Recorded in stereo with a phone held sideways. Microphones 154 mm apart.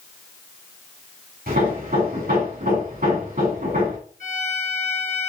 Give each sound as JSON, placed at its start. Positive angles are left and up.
{"t": 1.5, "sound": "hammering", "side_deg": -70, "distance_m": 3.5}
{"t": 4.2, "sound": "a violin", "side_deg": -70, "distance_m": 5.5}